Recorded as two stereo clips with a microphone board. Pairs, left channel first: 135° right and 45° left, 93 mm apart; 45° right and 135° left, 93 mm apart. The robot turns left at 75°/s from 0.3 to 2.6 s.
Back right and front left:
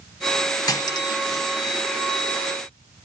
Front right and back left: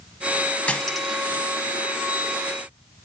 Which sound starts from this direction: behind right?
Cutlery clinking, at 0.7 s.